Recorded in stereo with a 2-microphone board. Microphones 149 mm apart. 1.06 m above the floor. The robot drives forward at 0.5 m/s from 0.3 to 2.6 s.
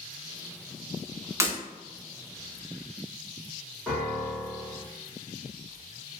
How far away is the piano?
About 1.2 m.